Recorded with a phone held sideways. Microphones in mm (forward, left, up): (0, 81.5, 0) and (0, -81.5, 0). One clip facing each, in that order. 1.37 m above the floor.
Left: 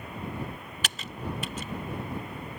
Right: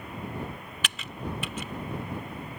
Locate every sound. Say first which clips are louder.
0.8 s typing on a keyboard: even; 40° left (ahead or behind)